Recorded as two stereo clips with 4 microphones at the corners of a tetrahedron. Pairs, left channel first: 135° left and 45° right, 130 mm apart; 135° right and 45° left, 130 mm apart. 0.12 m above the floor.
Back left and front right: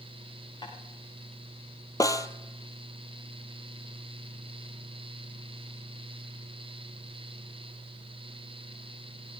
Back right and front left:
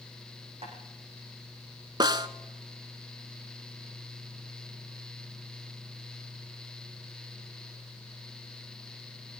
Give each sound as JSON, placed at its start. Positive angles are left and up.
{"t": 0.6, "sound": "tapping", "azimuth_deg": 80, "distance_m": 7.0}
{"t": 2.0, "sound": "a snare drum", "azimuth_deg": 85, "distance_m": 1.0}